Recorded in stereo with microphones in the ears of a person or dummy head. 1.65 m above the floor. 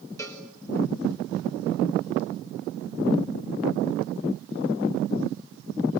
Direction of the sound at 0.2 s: 15° left (ahead or behind).